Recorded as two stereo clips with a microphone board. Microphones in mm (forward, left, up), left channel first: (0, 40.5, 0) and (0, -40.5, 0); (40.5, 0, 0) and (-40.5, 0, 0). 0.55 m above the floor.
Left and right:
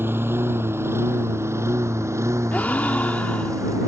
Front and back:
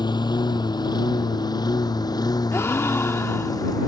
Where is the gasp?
35° left.